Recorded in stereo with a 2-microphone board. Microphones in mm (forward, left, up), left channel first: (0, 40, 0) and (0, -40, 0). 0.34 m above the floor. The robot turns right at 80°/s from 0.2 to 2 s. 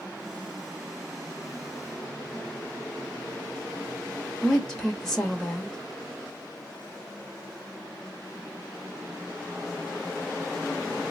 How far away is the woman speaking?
About 0.9 m.